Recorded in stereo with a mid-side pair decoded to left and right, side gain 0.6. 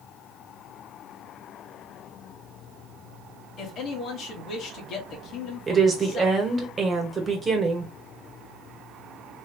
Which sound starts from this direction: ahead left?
A man speaking, at 3.6 s.